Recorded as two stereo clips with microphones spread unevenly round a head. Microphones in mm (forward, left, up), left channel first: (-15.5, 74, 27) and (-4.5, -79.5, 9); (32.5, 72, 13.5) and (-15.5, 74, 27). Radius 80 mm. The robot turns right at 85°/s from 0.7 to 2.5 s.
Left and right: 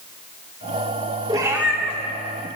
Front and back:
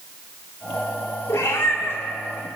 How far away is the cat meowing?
About 1.5 m.